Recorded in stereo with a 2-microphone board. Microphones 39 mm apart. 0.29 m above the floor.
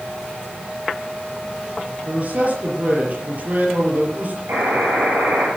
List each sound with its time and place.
2.0 s a man speaking: 40° right (ahead or behind), 5.5 m
4.5 s a buzzer: 65° right (ahead or behind), 6.5 m